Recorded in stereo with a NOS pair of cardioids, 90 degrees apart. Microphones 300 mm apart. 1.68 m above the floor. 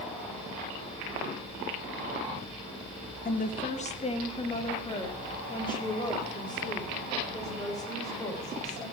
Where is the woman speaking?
30° left, 1.7 m; by 8.8 s 10° left, 9 m.